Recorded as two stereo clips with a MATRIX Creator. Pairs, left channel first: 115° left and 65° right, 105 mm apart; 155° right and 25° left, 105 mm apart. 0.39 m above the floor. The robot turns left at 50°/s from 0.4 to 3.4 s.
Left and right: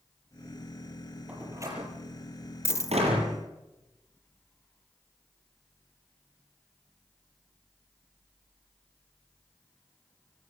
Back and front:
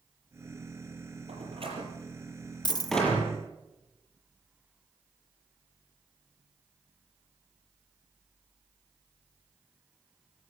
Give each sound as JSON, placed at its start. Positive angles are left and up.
{"t": 1.3, "sound": "a door slam", "azimuth_deg": 10, "distance_m": 7.0}
{"t": 2.6, "sound": "a dropped coin", "azimuth_deg": 170, "distance_m": 0.6}